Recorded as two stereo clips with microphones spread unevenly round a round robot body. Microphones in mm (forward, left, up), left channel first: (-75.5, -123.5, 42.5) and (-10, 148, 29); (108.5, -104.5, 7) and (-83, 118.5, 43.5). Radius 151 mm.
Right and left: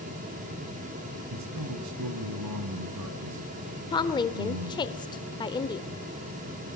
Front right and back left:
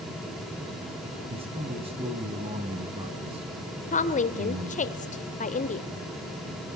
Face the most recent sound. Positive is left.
turn(degrees=-40)